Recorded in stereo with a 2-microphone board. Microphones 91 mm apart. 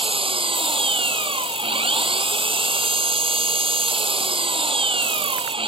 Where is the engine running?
80° right.